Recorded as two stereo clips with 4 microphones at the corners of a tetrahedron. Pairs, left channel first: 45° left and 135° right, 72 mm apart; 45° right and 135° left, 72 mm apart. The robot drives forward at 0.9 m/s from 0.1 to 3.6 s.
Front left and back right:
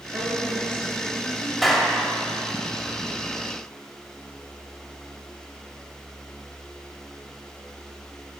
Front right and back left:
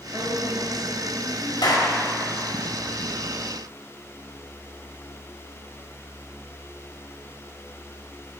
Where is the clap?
45° right, 1.9 m; by 1.9 s 50° right, 1.8 m.